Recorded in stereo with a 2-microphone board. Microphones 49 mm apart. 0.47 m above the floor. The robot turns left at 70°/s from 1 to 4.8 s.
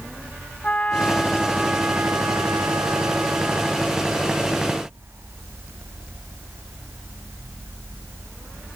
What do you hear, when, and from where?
0.6 s a trumpet: 30° left; by 4.0 s 175° left